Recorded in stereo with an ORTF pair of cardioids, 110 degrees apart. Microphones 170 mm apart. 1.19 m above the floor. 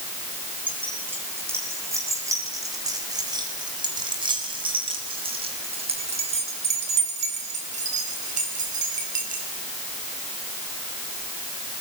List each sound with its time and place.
0.7 s keys jangling: 10° right, 8.5 m; by 9.4 s 50° right, 10 m